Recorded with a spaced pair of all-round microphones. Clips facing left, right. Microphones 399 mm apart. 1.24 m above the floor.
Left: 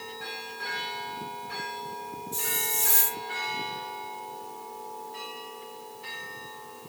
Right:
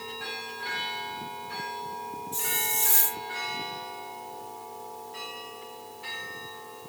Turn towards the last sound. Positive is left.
turn(degrees=40)  # may be behind; listen again after turning